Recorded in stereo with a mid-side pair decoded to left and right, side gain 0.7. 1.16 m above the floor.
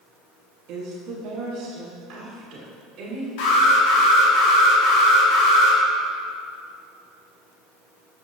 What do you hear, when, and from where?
0.7 s a woman speaking: 50° right, 1.4 m; by 3.3 s 45° right, 3 m
3.4 s an alarm: 70° left, 1.7 m